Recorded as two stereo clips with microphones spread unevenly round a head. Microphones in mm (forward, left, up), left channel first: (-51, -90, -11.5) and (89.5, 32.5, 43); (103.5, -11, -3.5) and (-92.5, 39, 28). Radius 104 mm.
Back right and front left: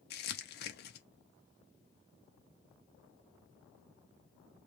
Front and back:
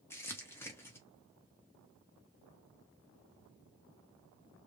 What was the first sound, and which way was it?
Crumpling, 95° right.